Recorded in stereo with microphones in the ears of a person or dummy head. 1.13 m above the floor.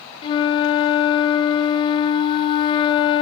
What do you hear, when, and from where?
0.2 s a flute: 20° left (ahead or behind), 0.5 m